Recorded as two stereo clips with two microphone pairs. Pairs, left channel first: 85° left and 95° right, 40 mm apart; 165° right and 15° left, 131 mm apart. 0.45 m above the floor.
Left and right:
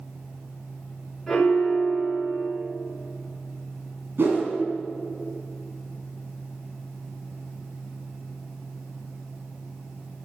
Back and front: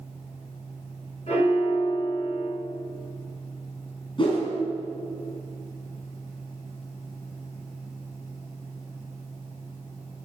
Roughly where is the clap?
No clap in this recording.